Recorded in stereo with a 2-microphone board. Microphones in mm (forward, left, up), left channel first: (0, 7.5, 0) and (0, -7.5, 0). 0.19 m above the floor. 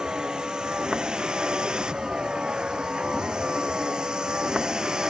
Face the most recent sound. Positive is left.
turn(degrees=-55)  # may be behind; listen again after turning